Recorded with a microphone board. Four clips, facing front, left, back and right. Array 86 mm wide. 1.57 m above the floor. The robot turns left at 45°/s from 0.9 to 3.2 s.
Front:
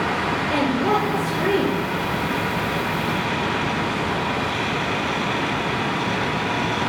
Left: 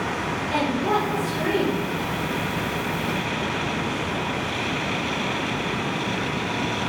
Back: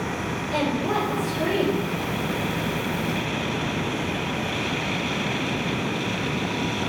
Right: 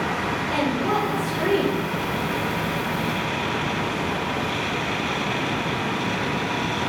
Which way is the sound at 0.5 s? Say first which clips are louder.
Left 1 dB, front 3 dB; straight ahead.